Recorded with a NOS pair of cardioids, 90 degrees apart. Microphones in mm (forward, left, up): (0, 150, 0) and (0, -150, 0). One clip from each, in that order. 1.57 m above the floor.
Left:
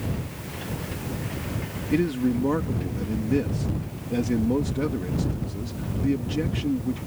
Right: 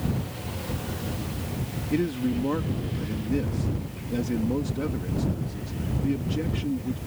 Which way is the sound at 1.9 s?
20° left.